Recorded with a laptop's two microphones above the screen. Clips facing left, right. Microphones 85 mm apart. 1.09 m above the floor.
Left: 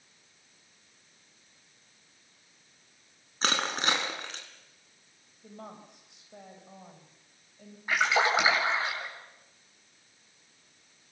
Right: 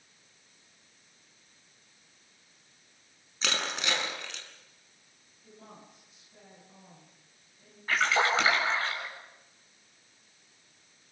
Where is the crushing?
40° left (ahead or behind), 5.5 m.